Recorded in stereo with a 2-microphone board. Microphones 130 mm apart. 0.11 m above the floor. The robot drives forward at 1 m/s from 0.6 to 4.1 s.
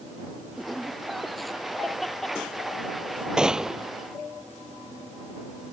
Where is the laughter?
Centre (ahead or behind).